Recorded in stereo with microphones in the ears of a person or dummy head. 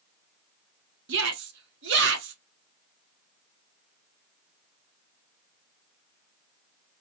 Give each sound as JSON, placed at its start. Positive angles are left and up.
{"t": 1.1, "sound": "a shout", "side_deg": -65, "distance_m": 1.4}